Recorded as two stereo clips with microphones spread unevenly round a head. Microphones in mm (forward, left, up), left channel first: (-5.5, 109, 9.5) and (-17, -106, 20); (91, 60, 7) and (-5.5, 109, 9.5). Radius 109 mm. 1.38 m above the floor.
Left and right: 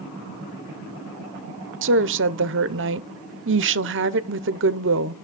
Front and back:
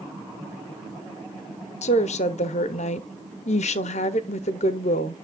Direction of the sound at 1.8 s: 55° right.